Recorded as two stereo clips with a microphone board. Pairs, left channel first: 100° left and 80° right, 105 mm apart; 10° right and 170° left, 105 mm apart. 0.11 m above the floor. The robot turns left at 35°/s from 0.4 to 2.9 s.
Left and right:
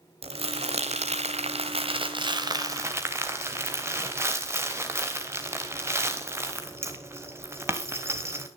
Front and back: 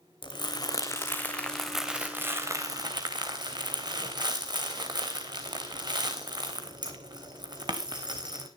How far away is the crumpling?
About 3.5 m.